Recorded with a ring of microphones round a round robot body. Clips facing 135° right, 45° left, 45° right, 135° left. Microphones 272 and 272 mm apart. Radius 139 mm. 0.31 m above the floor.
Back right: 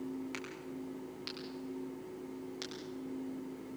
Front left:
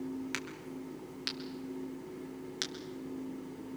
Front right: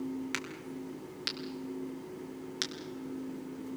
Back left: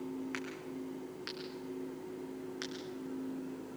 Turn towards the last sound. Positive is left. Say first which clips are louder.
# front left 1 dB, even
turn(degrees=-10)